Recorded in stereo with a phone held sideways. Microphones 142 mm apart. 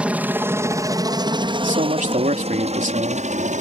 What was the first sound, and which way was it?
A helicopter, 10° right (ahead or behind).